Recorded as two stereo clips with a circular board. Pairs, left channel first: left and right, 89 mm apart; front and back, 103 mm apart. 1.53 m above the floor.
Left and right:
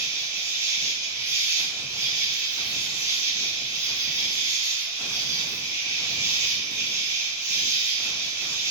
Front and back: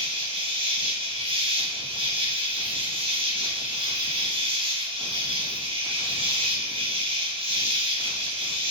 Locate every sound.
0.0 s an insect: 155° right, 1.1 m